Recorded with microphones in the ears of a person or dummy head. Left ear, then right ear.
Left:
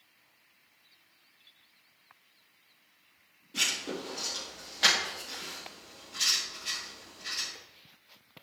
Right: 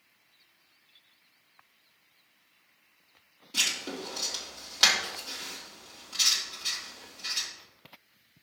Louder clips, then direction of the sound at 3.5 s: Right 2 dB; 50° right (ahead or behind).